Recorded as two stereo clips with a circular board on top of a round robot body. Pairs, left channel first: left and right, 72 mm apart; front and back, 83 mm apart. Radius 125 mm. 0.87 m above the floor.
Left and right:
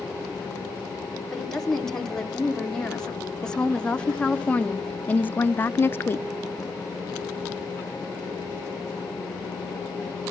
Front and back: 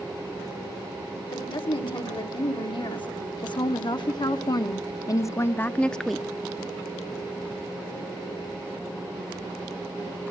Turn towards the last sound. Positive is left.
turn(degrees=100)